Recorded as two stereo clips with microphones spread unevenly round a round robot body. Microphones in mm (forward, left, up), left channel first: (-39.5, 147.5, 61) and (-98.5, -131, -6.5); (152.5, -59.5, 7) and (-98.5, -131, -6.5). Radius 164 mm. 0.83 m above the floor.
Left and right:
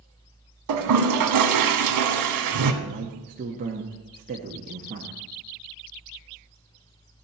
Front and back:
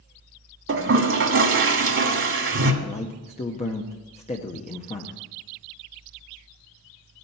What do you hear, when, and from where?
0.7 s a toilet flushing: 125° right, 1.6 m
2.8 s a man speaking: 50° right, 0.9 m